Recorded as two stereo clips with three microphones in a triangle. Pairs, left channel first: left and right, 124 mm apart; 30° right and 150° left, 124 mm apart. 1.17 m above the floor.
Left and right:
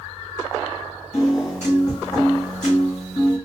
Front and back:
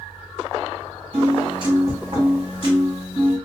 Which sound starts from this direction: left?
A piano, at 1.1 s.